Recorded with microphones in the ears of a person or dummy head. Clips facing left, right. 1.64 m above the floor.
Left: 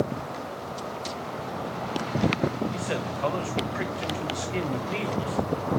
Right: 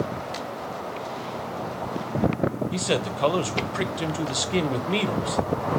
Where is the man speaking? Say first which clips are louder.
Right 4 dB; 50° right (ahead or behind), 1.2 m.